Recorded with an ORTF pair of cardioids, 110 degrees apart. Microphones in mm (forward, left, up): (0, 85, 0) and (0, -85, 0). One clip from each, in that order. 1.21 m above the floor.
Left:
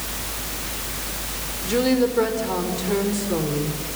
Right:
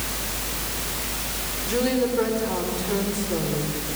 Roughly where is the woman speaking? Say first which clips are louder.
Left 3 dB; ahead left.